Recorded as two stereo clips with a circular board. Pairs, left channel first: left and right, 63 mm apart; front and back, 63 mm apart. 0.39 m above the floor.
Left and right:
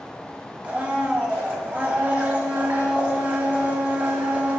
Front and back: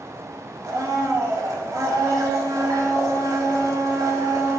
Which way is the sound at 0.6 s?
160° right.